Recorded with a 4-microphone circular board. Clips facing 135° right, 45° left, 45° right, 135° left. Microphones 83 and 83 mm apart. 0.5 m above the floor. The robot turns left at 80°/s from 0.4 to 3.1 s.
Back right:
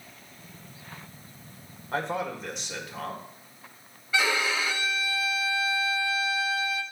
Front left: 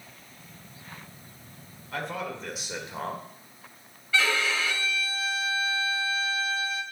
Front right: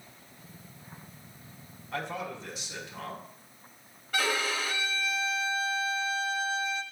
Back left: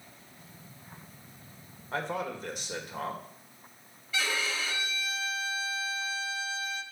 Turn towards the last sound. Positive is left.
turn(degrees=-65)